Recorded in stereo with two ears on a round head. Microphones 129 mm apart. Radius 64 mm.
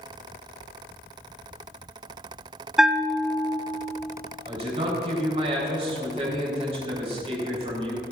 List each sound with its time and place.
2.8 s a bell: 5° right (ahead or behind), 0.5 m
4.5 s a man speaking: 45° right (ahead or behind), 3.5 m